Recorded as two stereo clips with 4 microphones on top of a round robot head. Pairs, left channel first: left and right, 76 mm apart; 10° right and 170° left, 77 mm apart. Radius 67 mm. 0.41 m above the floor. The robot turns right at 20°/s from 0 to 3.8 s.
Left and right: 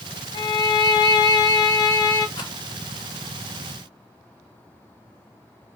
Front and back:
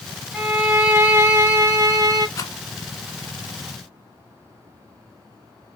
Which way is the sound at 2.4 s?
40° left.